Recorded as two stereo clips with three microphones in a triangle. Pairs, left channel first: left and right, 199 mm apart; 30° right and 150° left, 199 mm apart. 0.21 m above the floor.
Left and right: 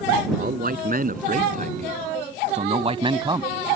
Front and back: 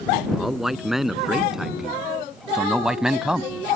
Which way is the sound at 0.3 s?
120° right.